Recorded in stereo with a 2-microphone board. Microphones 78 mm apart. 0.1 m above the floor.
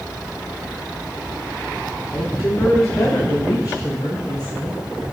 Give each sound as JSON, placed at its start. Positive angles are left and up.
{"t": 2.1, "sound": "a woman speaking", "side_deg": 40, "distance_m": 7.5}